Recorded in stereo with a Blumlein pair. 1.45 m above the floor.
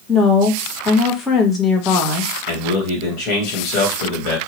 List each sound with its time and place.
0.1 s a woman speaking: 20° left, 1.1 m
2.5 s a man speaking: 40° left, 1.4 m